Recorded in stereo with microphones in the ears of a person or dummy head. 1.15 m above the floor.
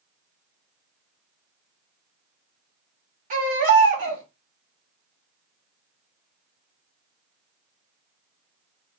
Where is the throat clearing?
I don't hear throat clearing.